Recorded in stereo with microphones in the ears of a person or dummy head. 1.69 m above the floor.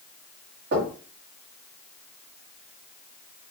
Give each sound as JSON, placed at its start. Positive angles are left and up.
{"t": 0.7, "sound": "knocking", "side_deg": -50, "distance_m": 1.4}